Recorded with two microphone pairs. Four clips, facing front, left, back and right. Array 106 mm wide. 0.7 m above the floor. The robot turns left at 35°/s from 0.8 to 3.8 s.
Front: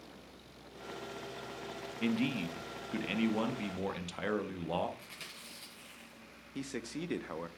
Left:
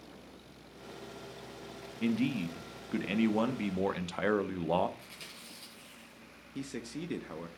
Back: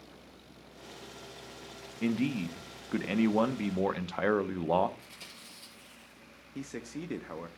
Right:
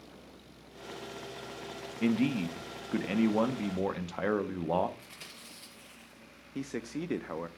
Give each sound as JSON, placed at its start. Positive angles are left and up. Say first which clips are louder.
{"t": 2.0, "sound": "a man speaking", "louder": "right 3 dB, back 3 dB", "azimuth_deg": -120, "distance_m": 0.6}
{"t": 5.0, "sound": "chewing", "louder": "even, even", "azimuth_deg": 5, "distance_m": 7.0}
{"t": 6.5, "sound": "a man speaking", "louder": "right 3 dB, even", "azimuth_deg": -90, "distance_m": 0.6}